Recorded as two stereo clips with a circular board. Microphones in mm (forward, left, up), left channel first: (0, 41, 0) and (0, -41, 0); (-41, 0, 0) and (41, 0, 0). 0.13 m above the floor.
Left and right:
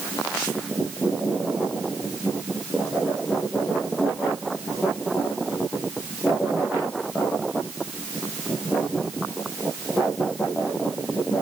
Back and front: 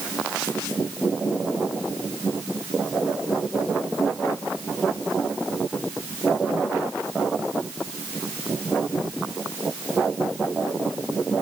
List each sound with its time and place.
Only background noise.